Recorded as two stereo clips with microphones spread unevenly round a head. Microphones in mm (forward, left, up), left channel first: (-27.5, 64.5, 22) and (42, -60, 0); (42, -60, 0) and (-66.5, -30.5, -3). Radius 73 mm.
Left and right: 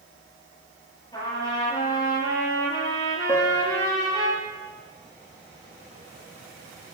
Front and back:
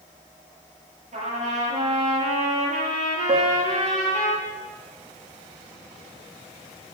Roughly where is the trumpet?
Behind.